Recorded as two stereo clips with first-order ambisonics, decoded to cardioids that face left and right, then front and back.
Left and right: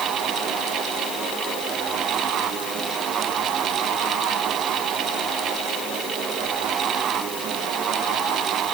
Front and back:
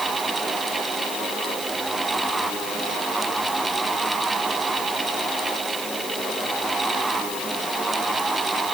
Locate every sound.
Only background noise.